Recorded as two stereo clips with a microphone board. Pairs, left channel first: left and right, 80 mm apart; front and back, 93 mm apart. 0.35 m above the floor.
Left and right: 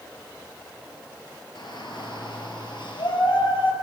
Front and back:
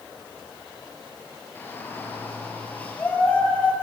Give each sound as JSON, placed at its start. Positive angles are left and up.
{"t": 1.6, "sound": "a shout", "azimuth_deg": 70, "distance_m": 5.5}